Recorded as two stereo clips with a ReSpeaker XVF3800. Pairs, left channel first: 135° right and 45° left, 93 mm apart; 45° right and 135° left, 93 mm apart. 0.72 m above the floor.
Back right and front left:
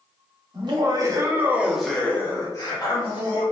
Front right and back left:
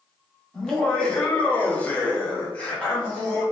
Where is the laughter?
35° left, 0.9 m; by 3.4 s 125° right, 1.0 m.